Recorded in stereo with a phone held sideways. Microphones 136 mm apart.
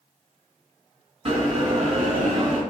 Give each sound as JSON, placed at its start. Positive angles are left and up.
{"t": 1.2, "sound": "a bell", "side_deg": -45, "distance_m": 1.8}